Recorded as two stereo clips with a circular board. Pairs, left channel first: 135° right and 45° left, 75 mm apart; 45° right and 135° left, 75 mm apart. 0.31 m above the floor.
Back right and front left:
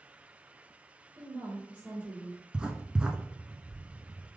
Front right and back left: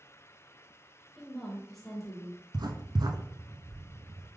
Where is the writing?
120° left, 0.5 m.